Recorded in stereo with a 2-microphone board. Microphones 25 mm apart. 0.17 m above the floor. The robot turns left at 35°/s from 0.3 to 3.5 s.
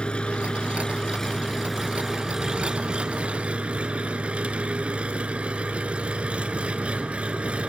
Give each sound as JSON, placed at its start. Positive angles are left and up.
{"t": 0.0, "sound": "an engine running", "azimuth_deg": 50, "distance_m": 1.0}